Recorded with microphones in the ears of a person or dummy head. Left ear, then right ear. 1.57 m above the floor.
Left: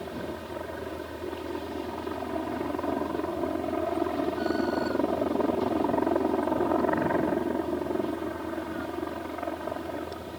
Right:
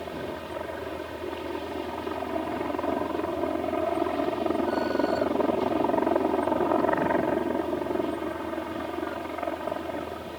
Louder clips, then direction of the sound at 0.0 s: Right 2 dB; 15° right (ahead or behind).